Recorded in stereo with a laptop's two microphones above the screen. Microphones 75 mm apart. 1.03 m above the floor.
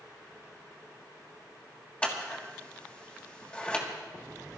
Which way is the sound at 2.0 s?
15° left (ahead or behind).